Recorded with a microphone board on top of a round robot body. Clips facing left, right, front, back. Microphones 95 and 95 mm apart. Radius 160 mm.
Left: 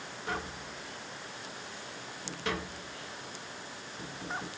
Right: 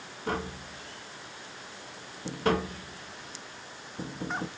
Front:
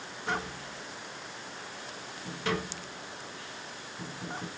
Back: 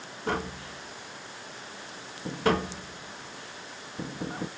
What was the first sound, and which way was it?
Tapping, 135° right.